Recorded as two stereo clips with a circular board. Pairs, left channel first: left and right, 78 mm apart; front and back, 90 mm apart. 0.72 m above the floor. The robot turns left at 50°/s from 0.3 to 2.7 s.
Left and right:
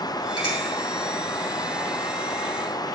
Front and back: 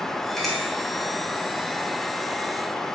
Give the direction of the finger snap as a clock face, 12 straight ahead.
3 o'clock.